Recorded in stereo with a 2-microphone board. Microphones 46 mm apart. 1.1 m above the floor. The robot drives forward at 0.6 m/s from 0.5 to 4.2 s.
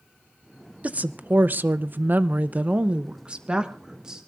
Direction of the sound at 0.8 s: 35° right (ahead or behind).